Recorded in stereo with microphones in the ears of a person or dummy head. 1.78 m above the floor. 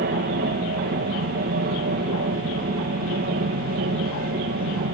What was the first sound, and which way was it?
An aircraft, 55° right (ahead or behind).